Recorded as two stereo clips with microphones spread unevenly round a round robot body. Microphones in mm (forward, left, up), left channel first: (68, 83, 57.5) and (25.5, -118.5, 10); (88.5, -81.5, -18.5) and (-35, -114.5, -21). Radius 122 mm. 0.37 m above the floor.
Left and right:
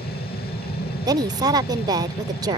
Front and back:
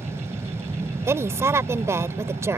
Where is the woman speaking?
120° right.